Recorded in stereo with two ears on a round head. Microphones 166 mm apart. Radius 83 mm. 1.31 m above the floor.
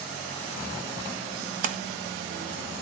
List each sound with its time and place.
1.6 s a splash: 45° right (ahead or behind), 0.9 m